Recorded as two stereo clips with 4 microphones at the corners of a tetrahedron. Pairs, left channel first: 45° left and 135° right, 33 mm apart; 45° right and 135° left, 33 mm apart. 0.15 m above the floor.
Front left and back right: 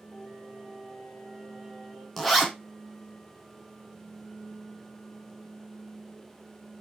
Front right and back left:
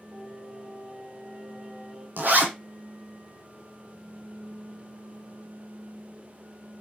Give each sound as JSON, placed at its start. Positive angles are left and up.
{"t": 0.1, "sound": "singing", "azimuth_deg": 65, "distance_m": 2.5}
{"t": 2.2, "sound": "a zipper", "azimuth_deg": 130, "distance_m": 0.9}